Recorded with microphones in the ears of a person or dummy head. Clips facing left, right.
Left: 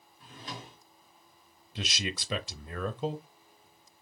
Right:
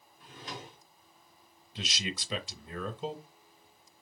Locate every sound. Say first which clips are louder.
0.2 s a drawer: even; 35° left (ahead or behind), 1.7 m
1.8 s a man speaking: left 2 dB; 50° left (ahead or behind), 0.7 m